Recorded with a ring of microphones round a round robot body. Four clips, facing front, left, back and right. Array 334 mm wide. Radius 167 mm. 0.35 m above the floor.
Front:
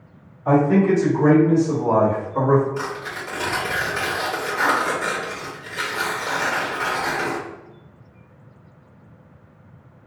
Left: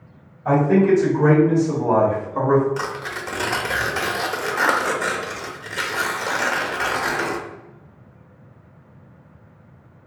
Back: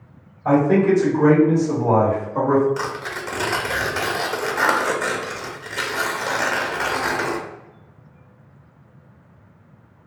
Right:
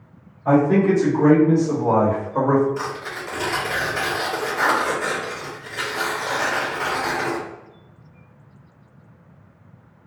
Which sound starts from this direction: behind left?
Tearing paper, at 2.8 s.